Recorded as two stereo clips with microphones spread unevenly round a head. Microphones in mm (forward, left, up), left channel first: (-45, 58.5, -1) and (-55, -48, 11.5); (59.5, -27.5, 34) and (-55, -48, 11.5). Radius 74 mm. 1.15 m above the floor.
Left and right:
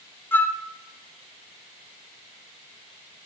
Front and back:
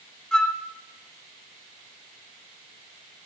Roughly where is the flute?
Left.